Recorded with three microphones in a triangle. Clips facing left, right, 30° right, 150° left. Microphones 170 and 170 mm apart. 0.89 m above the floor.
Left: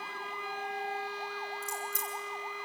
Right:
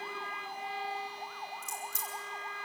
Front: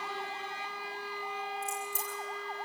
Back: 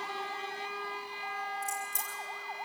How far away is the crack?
About 7.5 m.